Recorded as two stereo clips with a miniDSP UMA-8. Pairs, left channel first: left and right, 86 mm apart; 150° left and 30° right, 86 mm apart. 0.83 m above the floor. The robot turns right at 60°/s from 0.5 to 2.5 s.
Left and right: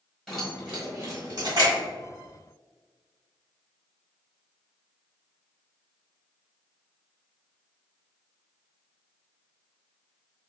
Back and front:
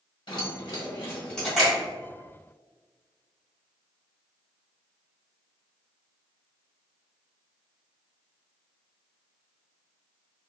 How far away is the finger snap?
About 1.5 m.